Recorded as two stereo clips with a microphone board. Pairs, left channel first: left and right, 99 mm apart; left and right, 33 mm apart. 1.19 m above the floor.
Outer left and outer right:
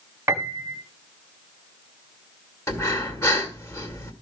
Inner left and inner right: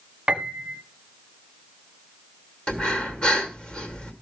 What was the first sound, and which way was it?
A piano, 30° right (ahead or behind).